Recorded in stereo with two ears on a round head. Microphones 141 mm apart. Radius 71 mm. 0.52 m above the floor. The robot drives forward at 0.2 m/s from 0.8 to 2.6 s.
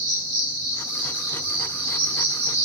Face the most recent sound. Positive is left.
turn(degrees=-40)  # may be behind; listen again after turning